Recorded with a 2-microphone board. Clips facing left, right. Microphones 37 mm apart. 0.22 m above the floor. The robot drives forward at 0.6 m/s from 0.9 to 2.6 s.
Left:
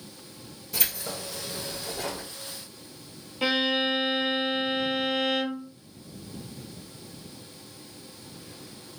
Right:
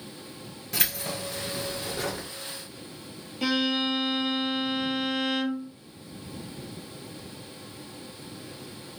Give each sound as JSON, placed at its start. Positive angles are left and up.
{"t": 0.7, "sound": "keys jangling", "side_deg": -65, "distance_m": 2.0}
{"t": 3.4, "sound": "a violin", "side_deg": 15, "distance_m": 0.7}